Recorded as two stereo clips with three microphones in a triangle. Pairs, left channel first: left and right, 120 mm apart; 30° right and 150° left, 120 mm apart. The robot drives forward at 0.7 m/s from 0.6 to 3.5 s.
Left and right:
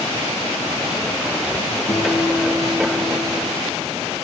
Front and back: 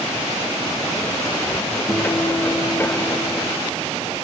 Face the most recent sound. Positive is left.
turn(degrees=45)